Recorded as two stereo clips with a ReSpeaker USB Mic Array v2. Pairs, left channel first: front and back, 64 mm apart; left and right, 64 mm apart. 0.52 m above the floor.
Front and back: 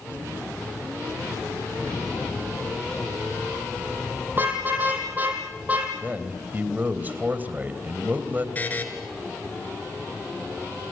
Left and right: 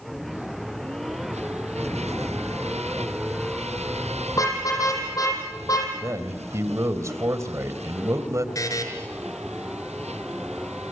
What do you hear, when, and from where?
4.3 s a car horn: 120° left, 9 m; by 5.9 s 110° left, 8 m
6.0 s a man speaking: 120° right, 3 m
8.6 s a buzzer: 60° left, 5 m